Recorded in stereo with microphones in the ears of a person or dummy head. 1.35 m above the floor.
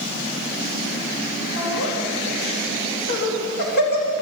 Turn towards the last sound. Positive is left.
turn(degrees=60)  # may be behind; listen again after turning